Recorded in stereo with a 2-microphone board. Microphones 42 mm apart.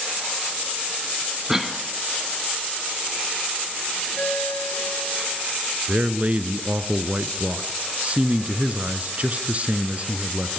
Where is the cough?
10° right (ahead or behind), 2.5 m.